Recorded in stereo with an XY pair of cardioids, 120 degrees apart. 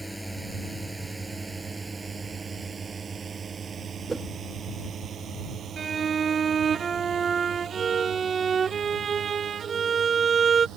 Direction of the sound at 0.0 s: 5° right.